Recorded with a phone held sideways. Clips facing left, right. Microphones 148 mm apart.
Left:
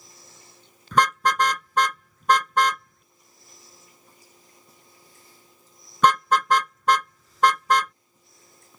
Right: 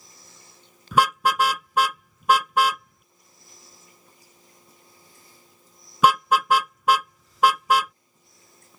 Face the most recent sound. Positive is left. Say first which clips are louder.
# right 1 dB
turn(degrees=-10)  # may be behind; listen again after turning